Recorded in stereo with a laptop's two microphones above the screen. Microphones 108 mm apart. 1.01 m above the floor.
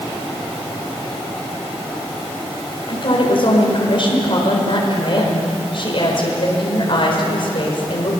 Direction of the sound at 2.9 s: 50° left (ahead or behind).